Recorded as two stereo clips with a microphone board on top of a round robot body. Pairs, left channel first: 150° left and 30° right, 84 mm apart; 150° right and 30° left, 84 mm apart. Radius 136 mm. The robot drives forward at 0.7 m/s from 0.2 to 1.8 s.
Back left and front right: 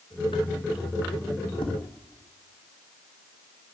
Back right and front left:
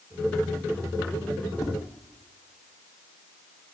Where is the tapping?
160° left, 1.4 m.